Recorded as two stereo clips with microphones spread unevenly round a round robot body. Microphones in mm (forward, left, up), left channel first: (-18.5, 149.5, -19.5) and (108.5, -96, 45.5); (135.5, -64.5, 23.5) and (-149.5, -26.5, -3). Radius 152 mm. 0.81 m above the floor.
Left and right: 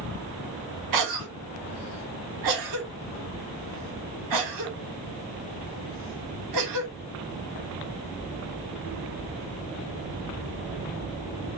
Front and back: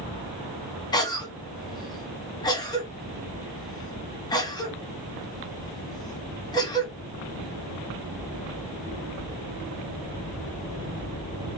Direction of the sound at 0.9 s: 85° right.